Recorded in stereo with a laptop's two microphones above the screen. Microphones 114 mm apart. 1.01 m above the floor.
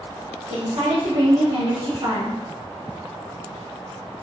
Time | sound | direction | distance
0.5 | a woman speaking | 65° right (ahead or behind) | 1.6 m